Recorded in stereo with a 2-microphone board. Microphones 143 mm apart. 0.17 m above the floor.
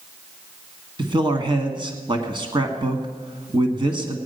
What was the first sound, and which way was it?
A man speaking, 35° right (ahead or behind).